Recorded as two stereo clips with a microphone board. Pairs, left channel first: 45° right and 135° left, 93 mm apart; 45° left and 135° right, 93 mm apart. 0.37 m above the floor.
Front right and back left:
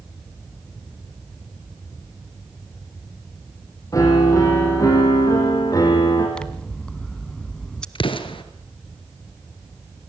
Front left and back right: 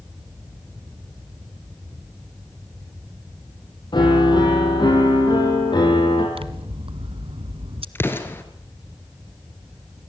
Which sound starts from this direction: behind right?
Scissors, at 6.3 s.